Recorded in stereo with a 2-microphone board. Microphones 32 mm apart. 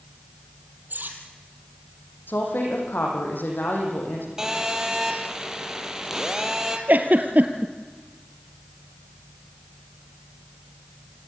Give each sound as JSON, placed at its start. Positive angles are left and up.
{"t": 0.9, "sound": "cutlery clinking", "side_deg": -75, "distance_m": 3.0}
{"t": 2.3, "sound": "a woman speaking", "side_deg": 80, "distance_m": 7.0}
{"t": 4.4, "sound": "a phone buzzing", "side_deg": -15, "distance_m": 2.5}
{"t": 6.9, "sound": "a giggle", "side_deg": -60, "distance_m": 1.7}